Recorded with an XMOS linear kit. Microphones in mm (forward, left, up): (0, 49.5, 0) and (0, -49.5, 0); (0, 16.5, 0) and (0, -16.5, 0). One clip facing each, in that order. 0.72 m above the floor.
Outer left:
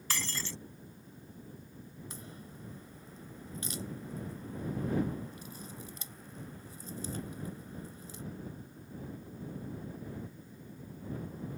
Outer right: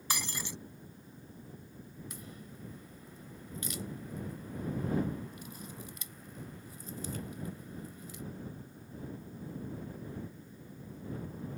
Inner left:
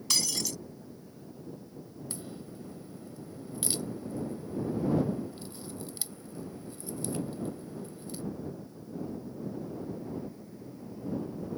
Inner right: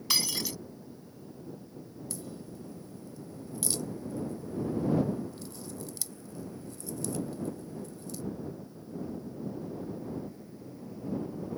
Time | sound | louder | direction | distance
0.1 | breaking glass | outer right 1 dB, inner right 1 dB | 15° right (ahead or behind) | ?
2.1 | a crack | even, even | 30° left (ahead or behind) | ?